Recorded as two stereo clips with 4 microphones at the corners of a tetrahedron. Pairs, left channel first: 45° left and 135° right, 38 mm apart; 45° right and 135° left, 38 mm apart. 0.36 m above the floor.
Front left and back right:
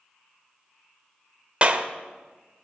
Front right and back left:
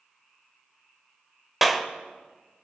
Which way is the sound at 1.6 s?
145° right.